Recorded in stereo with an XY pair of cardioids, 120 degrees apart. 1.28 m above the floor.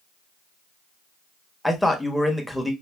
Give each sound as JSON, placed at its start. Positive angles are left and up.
{"t": 1.6, "sound": "a man speaking", "azimuth_deg": 5, "distance_m": 1.0}